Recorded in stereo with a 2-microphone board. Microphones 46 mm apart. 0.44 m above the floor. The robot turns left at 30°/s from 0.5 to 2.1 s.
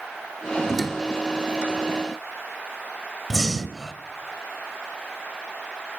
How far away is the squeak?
About 2 m.